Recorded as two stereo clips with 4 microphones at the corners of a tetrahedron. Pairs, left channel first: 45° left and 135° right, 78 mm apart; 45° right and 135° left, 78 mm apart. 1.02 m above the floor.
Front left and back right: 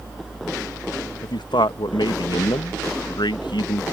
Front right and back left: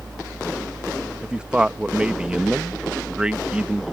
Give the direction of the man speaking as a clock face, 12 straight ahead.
10 o'clock.